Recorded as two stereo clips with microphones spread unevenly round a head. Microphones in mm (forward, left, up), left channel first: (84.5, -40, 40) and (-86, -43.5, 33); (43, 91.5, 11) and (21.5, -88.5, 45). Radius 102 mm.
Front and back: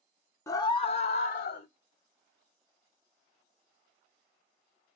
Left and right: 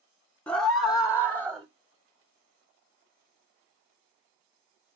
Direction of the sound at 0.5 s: 50° left.